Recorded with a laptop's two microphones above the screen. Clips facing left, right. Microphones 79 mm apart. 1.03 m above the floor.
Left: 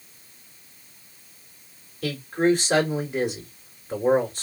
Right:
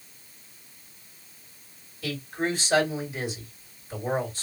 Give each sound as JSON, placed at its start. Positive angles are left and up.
{"t": 2.0, "sound": "a man speaking", "side_deg": 60, "distance_m": 2.5}